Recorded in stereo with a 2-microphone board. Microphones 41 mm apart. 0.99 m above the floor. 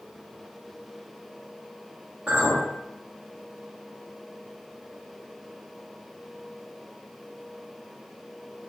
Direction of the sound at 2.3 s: 40° right (ahead or behind).